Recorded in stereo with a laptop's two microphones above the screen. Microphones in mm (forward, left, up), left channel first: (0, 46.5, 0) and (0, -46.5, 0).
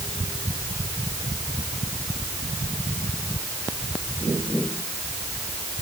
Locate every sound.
Only background noise.